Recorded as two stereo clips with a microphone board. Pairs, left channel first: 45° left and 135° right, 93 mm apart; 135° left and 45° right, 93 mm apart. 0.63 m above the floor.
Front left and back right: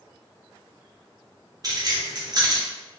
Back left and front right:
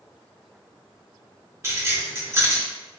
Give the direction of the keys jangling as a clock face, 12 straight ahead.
3 o'clock.